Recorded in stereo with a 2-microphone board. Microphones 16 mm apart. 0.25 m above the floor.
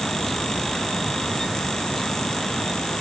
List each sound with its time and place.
Only background noise.